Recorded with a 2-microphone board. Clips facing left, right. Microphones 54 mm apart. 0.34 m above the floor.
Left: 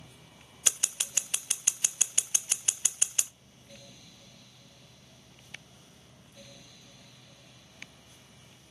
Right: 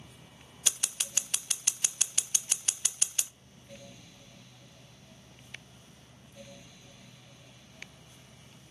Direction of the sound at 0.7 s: 20° left (ahead or behind).